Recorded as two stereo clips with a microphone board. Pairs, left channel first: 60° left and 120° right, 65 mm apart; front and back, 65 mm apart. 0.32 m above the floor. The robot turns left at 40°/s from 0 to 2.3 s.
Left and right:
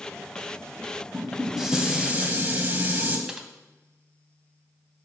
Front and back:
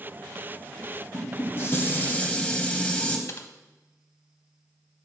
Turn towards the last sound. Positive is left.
turn(degrees=-40)